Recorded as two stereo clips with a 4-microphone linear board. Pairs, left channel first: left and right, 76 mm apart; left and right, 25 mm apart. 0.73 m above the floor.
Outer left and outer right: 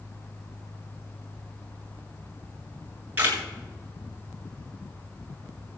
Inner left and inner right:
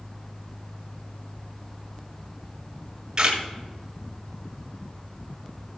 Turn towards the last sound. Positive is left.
turn(degrees=-25)  # may be behind; listen again after turning